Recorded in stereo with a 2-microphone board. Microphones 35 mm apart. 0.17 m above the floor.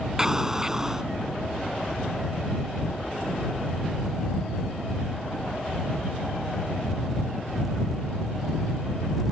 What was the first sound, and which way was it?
An explosion, 15° right (ahead or behind).